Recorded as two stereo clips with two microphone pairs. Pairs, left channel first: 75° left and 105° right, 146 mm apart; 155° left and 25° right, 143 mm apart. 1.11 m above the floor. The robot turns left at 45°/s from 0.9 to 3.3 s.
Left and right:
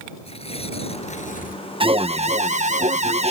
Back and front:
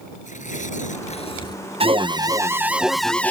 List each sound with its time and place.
0.2 s tearing paper: 125° left; by 1.6 s 90° left
1.8 s an alarm: 60° right; by 3.3 s 130° right